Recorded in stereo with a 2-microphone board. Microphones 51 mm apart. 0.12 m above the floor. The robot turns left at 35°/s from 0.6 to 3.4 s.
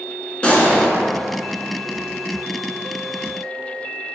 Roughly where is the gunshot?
Left.